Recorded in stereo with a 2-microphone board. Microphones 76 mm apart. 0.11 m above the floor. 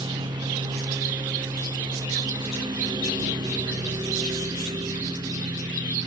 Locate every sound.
0.0 s a lawn mower: 90° right